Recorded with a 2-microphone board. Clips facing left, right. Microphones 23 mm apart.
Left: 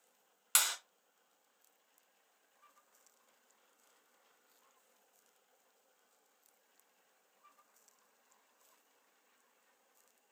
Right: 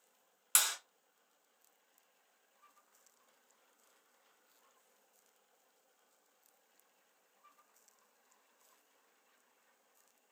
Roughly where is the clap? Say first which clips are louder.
Even; centre.